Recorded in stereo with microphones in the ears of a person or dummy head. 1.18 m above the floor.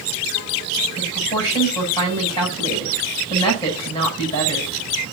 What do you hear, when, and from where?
1.0 s a woman speaking: 20° left (ahead or behind), 9.5 m